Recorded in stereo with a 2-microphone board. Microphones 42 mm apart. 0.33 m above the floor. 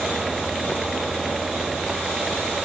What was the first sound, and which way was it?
Only background noise.